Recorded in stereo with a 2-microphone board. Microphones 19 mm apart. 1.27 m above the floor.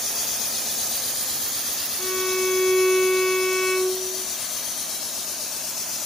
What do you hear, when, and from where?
2.0 s a violin: 70° left (ahead or behind), 3.5 m